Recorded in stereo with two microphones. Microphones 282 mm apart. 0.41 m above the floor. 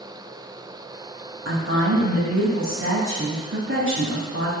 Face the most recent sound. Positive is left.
turn(degrees=-50)  # may be behind; listen again after turning